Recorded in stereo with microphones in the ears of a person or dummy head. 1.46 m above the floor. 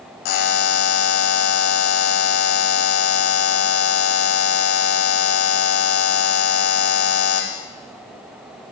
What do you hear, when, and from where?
0.2 s a buzzer: 60° left (ahead or behind), 1.2 m